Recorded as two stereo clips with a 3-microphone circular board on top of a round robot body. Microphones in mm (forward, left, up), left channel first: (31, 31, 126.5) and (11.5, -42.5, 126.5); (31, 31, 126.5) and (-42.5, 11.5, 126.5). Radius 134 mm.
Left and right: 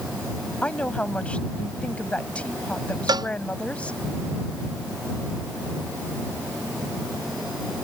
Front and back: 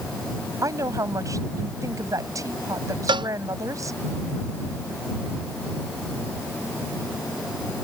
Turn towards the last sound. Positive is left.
turn(degrees=-145)